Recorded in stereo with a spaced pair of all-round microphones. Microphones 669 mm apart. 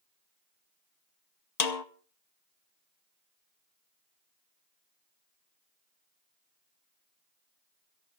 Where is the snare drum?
70° left (ahead or behind), 1.0 m.